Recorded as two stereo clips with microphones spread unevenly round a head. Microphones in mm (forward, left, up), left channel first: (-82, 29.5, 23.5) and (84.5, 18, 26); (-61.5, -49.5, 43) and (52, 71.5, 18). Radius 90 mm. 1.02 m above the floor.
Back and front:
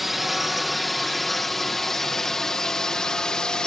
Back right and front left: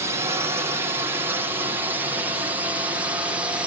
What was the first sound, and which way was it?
A drone, 85° left.